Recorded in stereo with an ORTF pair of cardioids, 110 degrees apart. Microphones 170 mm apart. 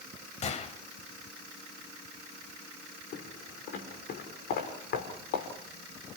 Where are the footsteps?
65° left, 6 m.